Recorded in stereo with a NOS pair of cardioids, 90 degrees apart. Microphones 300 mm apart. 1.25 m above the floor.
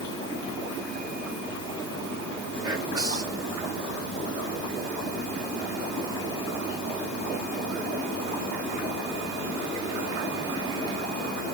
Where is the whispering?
15° right, 1.6 m.